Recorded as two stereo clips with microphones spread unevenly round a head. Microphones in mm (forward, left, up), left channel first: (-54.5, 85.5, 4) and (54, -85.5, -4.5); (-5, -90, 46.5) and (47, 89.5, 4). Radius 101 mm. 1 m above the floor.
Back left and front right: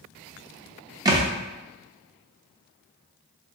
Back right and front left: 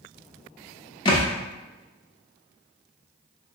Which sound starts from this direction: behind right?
A thud, at 1.1 s.